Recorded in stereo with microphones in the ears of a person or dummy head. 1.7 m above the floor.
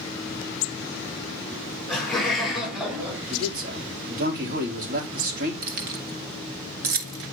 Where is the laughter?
5° left (ahead or behind), 5.5 m; by 3.2 s 5° right (ahead or behind), 4 m.